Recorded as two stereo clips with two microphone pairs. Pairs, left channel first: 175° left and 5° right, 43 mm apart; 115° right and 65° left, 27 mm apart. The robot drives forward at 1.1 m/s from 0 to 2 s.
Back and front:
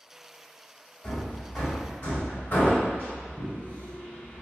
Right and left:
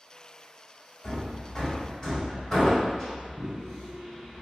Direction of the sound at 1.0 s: 165° right.